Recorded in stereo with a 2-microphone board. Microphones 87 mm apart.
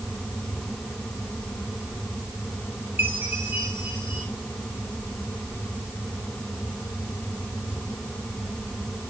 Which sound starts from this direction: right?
A chime, at 3.0 s.